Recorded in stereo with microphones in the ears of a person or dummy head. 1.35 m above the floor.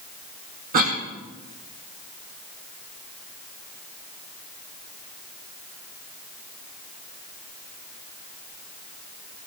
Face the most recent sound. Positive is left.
turn(degrees=-45)  # may be behind; listen again after turning